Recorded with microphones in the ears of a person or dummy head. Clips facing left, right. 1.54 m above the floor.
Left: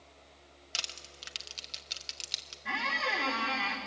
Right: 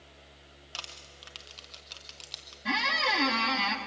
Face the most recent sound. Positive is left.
turn(degrees=-55)  # may be behind; listen again after turning